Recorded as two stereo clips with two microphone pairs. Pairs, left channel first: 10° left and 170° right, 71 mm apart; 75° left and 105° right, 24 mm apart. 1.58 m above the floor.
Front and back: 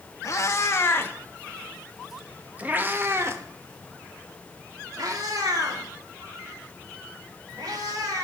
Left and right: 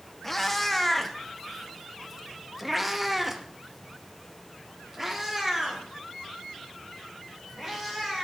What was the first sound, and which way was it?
A cat meowing, straight ahead.